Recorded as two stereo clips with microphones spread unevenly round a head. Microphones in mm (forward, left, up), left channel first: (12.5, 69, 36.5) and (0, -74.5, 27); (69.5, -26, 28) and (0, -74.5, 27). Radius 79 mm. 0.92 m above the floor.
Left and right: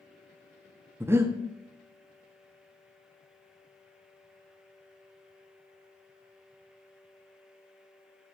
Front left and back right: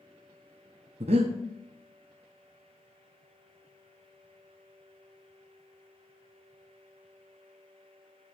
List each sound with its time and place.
1.0 s breathing: 170° right, 0.6 m